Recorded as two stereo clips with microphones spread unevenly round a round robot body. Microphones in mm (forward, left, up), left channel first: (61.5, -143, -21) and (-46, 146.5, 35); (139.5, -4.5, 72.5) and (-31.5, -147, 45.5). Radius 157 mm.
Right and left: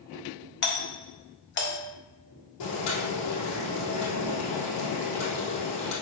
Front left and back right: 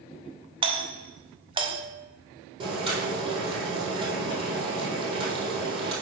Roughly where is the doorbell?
Right.